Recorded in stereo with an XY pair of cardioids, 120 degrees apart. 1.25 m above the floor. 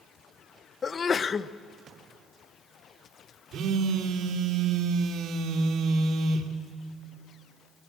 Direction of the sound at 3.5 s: 55° right.